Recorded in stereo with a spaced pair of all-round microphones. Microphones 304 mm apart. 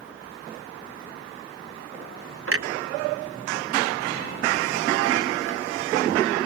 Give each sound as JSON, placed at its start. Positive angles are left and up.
{"t": 2.5, "sound": "a clunk", "side_deg": -50, "distance_m": 0.7}